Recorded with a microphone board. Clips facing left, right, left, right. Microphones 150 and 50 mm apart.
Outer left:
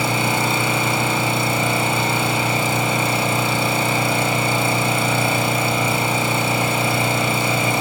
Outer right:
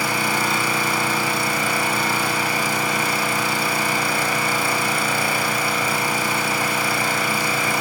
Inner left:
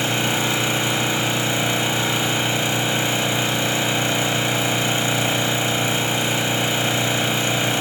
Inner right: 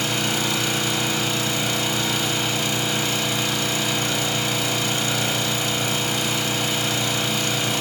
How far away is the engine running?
About 1.2 m.